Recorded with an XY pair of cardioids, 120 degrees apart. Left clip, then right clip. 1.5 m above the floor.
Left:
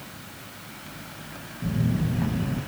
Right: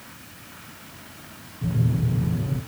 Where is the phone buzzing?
65° right, 4 m.